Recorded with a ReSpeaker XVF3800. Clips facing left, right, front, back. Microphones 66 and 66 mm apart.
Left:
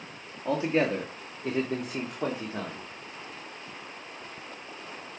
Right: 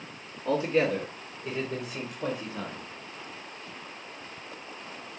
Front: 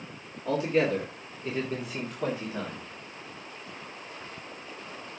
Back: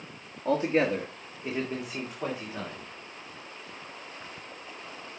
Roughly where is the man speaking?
Behind left.